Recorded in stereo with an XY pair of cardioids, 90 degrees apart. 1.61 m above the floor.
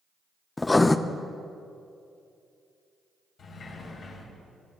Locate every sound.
0.6 s writing: 20° left, 0.5 m
3.4 s a sliding door: 65° left, 4 m